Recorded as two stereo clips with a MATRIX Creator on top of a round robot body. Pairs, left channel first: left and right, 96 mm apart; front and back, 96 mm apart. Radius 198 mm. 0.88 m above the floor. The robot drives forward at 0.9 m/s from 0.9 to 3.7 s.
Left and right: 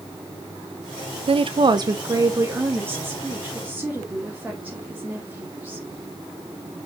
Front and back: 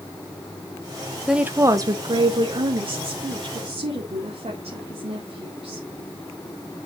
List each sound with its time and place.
1.3 s a woman speaking: 95° right, 0.8 m; by 5.8 s 165° right, 2.5 m